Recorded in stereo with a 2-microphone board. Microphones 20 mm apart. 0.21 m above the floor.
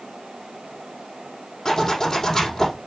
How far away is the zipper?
About 4.5 m.